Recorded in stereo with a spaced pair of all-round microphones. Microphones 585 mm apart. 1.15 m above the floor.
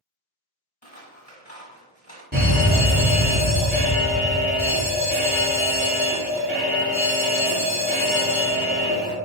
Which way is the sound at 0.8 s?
15° left (ahead or behind).